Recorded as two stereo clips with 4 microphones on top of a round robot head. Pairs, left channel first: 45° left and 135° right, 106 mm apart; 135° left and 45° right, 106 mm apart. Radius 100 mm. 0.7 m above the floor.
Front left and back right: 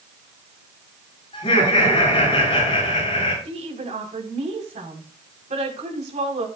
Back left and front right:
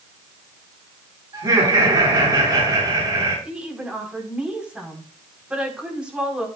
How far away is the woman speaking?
About 5 m.